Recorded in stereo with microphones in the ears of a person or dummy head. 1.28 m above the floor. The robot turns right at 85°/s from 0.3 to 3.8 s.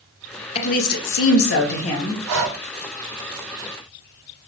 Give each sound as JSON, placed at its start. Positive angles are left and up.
{"t": 0.6, "sound": "a woman speaking", "azimuth_deg": 35, "distance_m": 0.9}
{"t": 2.3, "sound": "breathing", "side_deg": -80, "distance_m": 1.1}